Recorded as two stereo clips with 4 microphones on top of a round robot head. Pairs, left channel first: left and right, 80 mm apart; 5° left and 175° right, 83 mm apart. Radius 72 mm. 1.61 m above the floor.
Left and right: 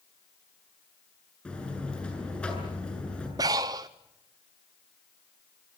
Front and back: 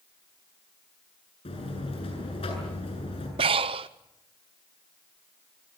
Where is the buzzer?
15° left, 8 m.